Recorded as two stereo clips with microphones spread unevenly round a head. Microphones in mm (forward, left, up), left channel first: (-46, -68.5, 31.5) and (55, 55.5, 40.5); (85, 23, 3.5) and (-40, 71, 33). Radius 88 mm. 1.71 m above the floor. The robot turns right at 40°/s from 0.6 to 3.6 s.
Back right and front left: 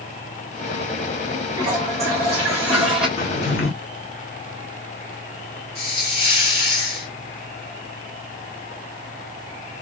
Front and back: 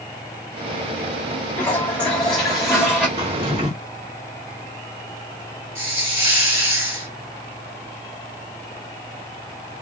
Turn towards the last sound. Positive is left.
turn(degrees=-170)